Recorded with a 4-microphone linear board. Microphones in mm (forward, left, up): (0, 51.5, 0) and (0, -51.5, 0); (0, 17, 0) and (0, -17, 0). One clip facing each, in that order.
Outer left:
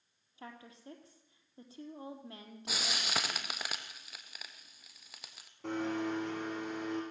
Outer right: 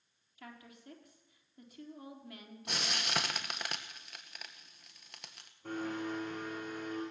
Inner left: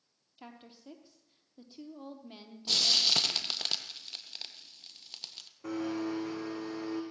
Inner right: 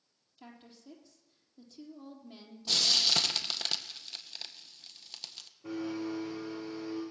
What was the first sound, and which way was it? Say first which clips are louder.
A woman speaking: outer left 2 dB, inner left 2 dB; 30° left (ahead or behind).